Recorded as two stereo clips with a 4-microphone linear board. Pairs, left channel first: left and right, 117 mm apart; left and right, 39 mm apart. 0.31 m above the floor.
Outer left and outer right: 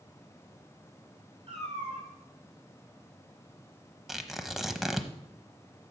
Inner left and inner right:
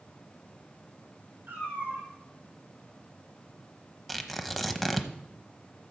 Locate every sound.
1.5 s a cat meowing: 55° right (ahead or behind), 6.5 m
4.1 s tearing paper: centre (ahead or behind), 0.8 m